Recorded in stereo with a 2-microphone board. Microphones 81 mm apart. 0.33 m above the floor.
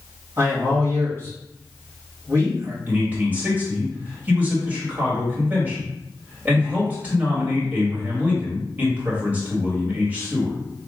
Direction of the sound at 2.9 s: 20° right (ahead or behind).